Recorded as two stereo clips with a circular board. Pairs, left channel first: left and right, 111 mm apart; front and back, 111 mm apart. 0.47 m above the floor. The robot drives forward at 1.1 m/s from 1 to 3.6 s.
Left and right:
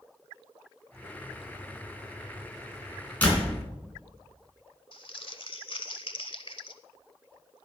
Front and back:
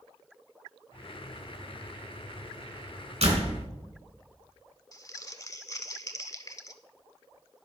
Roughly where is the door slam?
Behind.